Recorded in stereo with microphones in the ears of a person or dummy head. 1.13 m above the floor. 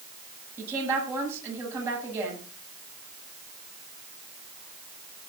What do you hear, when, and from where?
0.6 s a woman speaking: 10° right (ahead or behind), 9 m